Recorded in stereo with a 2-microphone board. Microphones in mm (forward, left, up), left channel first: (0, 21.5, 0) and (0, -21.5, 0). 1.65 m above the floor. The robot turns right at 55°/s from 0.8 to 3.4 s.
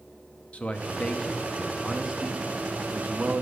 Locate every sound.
0.5 s a man speaking: 135° left, 0.7 m; by 3.4 s 80° right, 0.7 m